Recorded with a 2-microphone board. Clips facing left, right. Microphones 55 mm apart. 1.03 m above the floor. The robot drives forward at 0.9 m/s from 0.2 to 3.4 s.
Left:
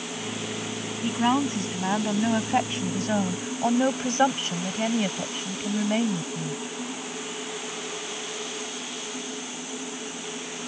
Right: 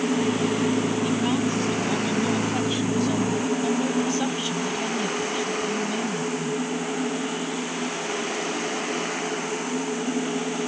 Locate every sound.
1.0 s a woman speaking: 30° left (ahead or behind); by 6.6 s 45° left (ahead or behind)